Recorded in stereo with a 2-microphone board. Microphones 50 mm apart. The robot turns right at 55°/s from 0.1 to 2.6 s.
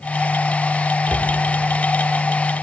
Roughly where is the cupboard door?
Right.